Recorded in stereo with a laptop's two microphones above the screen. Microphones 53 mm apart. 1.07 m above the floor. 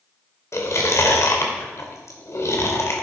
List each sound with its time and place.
0.5 s chewing: 55° left (ahead or behind), 2.5 m